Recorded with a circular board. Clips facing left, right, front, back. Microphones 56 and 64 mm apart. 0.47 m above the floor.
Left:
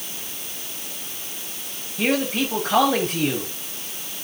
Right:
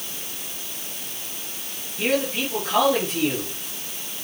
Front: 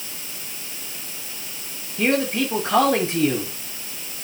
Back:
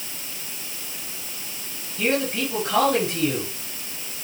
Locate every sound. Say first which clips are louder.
2.0 s a man speaking: left 1 dB, front 3 dB; 55° left, 9 m